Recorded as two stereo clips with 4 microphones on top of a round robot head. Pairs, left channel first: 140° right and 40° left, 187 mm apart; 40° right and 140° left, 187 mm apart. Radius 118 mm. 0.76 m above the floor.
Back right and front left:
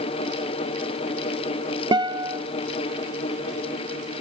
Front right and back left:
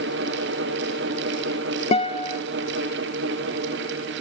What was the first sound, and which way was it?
A guitar, 10° right.